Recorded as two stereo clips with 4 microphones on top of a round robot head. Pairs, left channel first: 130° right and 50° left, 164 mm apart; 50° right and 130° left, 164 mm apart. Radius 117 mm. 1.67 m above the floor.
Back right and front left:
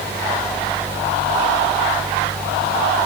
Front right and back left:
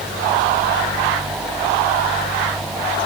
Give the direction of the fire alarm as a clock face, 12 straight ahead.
I don't hear a fire alarm.